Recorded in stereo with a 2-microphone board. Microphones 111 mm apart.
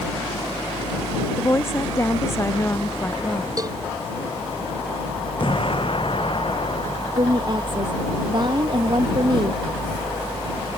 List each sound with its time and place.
1.4 s a woman speaking: 20° left (ahead or behind)
3.6 s a cowbell: 35° right (ahead or behind)
5.4 s an explosion: 50° left (ahead or behind)
7.2 s a woman speaking: 45° right (ahead or behind)